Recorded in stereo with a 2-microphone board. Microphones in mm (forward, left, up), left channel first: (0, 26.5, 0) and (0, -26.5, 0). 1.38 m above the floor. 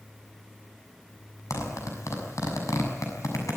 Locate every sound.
1.5 s a zipper: 80° left, 6.5 m